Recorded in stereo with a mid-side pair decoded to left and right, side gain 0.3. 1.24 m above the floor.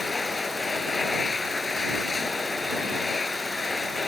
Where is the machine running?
40° left.